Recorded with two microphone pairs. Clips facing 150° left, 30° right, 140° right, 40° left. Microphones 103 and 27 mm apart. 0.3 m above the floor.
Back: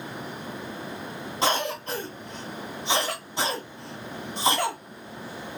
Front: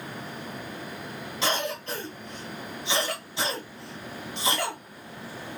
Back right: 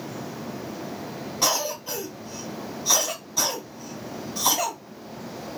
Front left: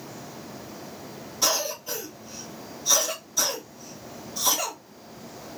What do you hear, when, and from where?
1.4 s a cough: straight behind, 1.9 m